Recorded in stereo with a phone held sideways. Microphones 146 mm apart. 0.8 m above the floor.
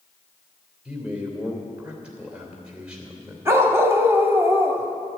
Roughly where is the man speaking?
Centre.